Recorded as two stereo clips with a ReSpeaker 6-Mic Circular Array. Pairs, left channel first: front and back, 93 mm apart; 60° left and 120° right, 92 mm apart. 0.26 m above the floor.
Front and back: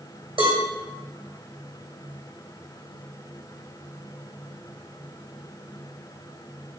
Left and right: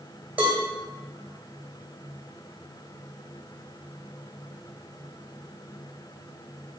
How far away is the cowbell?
About 2.0 m.